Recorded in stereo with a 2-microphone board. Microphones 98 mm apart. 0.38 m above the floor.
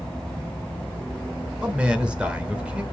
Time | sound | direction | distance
1.6 | a man speaking | 10° right (ahead or behind) | 1.4 m